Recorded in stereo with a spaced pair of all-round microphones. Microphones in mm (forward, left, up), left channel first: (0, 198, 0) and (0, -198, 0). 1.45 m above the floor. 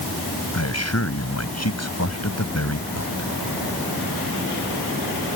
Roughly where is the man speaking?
Left.